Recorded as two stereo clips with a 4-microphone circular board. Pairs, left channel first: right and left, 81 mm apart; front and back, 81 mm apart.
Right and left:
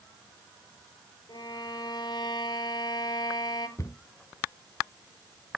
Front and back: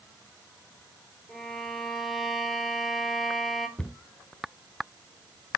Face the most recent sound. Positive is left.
turn(degrees=-70)